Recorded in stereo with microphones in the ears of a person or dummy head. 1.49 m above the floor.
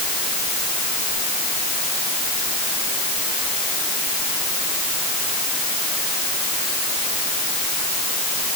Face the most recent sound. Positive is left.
No sound to turn to.